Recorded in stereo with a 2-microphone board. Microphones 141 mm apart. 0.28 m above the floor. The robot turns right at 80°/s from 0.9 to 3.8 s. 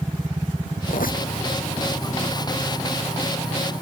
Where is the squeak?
75° left; by 1.3 s 105° left.